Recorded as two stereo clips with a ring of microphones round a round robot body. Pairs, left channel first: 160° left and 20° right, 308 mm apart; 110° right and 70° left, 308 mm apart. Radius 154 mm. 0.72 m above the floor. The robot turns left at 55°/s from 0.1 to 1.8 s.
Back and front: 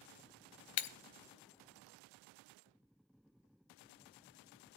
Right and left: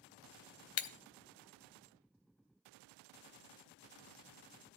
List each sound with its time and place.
0.8 s breaking glass: 160° right, 0.8 m; by 0.9 s 165° right, 0.8 m